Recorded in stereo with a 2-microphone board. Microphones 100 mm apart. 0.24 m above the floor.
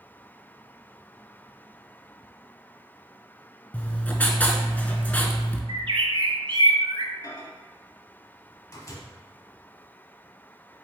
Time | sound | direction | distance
3.7 | writing | 20° left (ahead or behind) | 0.6 m
5.7 | a bird | 55° right (ahead or behind) | 0.6 m
7.2 | a microwave | 35° left (ahead or behind) | 1.0 m